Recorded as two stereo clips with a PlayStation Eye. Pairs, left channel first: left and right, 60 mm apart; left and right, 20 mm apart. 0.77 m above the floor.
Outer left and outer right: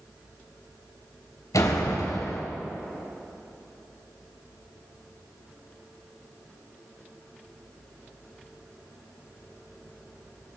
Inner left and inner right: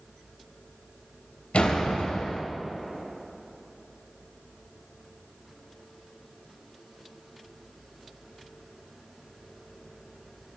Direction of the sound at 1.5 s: 75° left (ahead or behind).